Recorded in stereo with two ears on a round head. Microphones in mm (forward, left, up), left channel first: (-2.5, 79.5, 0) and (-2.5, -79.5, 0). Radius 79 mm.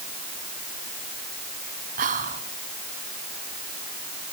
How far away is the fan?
No fan in this recording.